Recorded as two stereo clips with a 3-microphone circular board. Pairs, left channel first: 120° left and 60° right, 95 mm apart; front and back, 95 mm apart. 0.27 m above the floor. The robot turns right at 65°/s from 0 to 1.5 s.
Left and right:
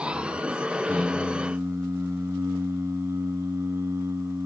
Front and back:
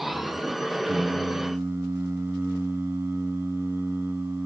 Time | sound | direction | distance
0.9 | singing | 160° right | 0.9 m